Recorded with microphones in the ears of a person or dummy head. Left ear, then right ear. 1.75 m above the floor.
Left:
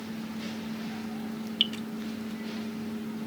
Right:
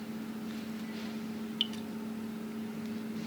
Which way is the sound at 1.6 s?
20° left (ahead or behind).